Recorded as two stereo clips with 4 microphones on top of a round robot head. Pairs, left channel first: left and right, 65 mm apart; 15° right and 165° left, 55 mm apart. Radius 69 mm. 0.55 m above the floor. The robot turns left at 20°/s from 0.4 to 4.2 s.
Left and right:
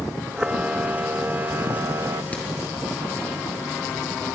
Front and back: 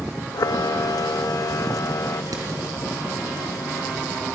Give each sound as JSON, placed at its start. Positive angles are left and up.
{"t": 0.3, "sound": "a camera shutter", "azimuth_deg": -15, "distance_m": 0.6}
{"t": 2.3, "sound": "hammering", "azimuth_deg": 160, "distance_m": 3.0}